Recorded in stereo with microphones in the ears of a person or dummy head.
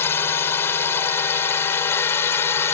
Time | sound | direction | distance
0.0 | a drone | 15° left (ahead or behind) | ?